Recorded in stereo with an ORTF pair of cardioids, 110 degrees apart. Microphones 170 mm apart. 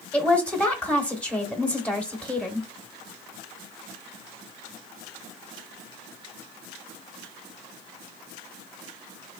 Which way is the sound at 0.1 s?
5° left.